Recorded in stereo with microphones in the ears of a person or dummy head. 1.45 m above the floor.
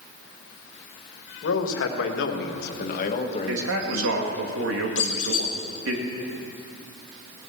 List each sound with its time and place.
1.4 s a man speaking: 85° left, 1.8 m; by 4.5 s 5° left (ahead or behind), 1.7 m
3.5 s a man speaking: 75° right (ahead or behind), 2.0 m
5.0 s a squeak: 45° left (ahead or behind), 1.4 m